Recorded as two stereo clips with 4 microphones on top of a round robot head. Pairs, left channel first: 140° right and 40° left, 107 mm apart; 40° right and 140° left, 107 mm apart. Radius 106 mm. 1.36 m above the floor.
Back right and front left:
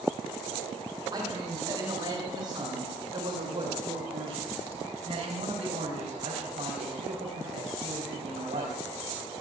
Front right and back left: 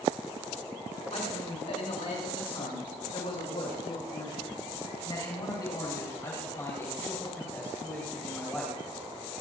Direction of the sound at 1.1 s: 15° right.